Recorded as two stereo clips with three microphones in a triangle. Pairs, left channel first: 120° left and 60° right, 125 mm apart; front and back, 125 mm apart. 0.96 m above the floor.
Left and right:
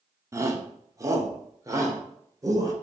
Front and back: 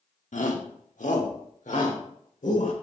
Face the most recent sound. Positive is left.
turn(degrees=0)